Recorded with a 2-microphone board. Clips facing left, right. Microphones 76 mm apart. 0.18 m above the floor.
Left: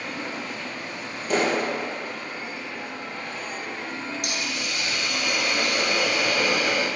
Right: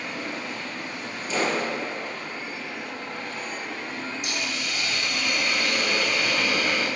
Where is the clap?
60° left (ahead or behind), 2.5 m.